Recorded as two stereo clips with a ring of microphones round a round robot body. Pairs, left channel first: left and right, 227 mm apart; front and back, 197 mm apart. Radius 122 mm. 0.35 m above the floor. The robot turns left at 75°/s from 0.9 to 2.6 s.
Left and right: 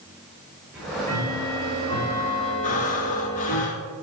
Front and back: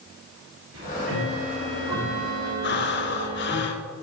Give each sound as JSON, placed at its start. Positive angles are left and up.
{"t": 0.7, "sound": "ticking", "azimuth_deg": -175, "distance_m": 4.0}
{"t": 2.6, "sound": "breathing", "azimuth_deg": 35, "distance_m": 0.9}